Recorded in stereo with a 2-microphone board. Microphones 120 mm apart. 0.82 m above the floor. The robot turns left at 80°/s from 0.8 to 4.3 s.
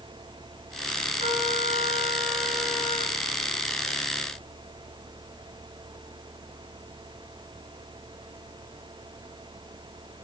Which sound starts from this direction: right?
A trumpet, at 1.2 s.